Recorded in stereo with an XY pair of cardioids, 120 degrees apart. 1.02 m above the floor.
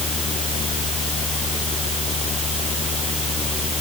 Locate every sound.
0.0 s a fan: 40° left